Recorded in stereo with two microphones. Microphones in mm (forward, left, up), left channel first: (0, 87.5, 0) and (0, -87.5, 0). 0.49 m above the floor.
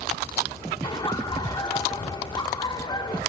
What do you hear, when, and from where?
0.8 s laughter: 25° left (ahead or behind), 0.8 m